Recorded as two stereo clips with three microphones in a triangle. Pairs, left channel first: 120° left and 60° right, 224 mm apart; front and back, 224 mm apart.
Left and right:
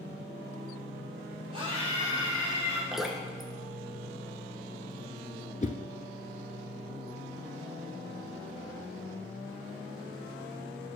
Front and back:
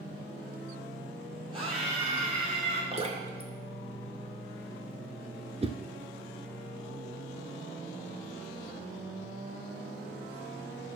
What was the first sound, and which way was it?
A scream, 120° right.